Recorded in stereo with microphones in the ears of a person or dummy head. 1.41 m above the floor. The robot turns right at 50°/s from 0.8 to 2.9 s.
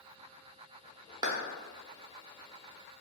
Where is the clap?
25° right (ahead or behind), 0.6 m; by 1.3 s 30° right (ahead or behind), 0.6 m.